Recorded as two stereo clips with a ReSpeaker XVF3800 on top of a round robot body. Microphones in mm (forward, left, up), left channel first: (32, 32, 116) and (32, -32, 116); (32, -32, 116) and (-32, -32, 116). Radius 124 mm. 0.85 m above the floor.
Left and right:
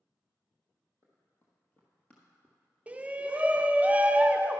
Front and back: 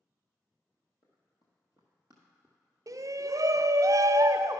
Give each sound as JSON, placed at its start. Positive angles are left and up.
{"t": 1.0, "sound": "running footsteps", "azimuth_deg": 25, "distance_m": 1.6}
{"t": 2.9, "sound": "a shout", "azimuth_deg": -155, "distance_m": 0.6}